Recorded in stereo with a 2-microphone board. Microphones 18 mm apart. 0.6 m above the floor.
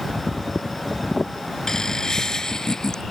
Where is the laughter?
35° left (ahead or behind); by 3.0 s 40° left (ahead or behind).